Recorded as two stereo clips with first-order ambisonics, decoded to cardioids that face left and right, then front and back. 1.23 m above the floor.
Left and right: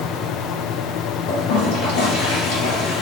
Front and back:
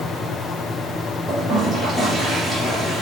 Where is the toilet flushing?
105° left, 3.5 m.